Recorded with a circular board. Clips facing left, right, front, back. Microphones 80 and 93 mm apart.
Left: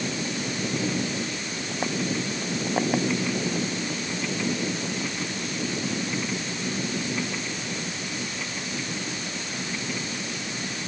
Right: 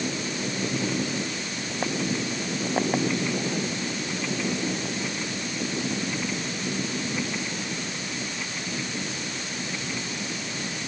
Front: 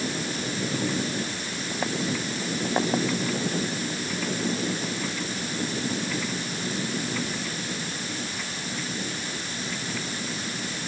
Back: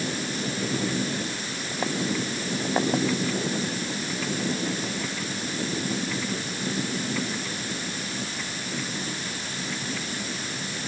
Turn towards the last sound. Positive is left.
No sound to turn to.